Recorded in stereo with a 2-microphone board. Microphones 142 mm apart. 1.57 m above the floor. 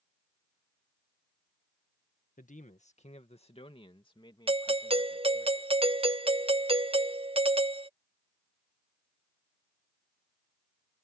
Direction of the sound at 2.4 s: 65° left (ahead or behind).